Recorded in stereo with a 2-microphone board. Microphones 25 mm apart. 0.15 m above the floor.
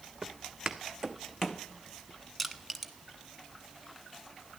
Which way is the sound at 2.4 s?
5° left (ahead or behind).